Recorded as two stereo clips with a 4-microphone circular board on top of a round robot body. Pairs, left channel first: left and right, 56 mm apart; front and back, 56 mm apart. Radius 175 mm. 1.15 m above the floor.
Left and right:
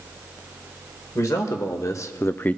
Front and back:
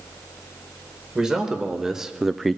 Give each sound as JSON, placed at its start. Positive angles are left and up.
{"t": 1.1, "sound": "a man speaking", "azimuth_deg": 100, "distance_m": 1.7}